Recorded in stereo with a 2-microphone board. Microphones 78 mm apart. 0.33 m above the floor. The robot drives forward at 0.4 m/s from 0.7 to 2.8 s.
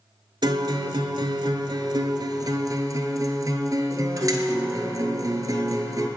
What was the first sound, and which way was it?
A guitar, 75° right (ahead or behind).